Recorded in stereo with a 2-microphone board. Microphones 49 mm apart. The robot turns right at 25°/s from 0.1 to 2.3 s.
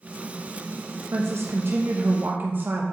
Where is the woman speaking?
65° right (ahead or behind), 0.8 m; by 2.8 s 45° right (ahead or behind), 0.8 m.